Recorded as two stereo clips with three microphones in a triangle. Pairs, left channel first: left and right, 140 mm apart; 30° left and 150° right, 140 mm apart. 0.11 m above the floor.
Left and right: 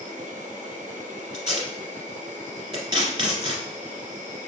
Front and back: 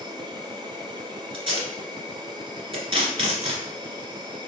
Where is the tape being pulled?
125° right, 1.8 m.